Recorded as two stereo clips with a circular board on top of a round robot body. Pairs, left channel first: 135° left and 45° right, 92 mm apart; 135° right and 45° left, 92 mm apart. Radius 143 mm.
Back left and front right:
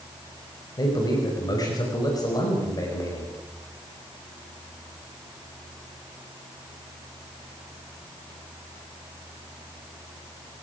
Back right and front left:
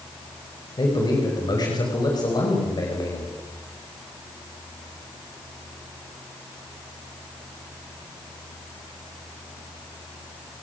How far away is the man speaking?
About 5.5 m.